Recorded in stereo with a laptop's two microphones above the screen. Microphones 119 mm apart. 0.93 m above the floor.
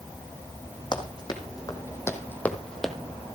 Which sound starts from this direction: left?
Running footsteps, at 0.9 s.